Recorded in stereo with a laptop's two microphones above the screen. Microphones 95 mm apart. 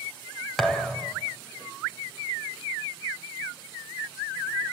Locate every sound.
0.6 s a thud: 5° left (ahead or behind), 2.5 m